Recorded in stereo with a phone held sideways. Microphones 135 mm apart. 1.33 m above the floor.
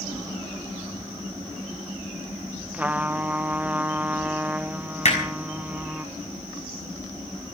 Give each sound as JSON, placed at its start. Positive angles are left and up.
{"t": 2.7, "sound": "a trumpet", "side_deg": -10, "distance_m": 0.5}
{"t": 5.0, "sound": "hammering", "side_deg": 55, "distance_m": 5.5}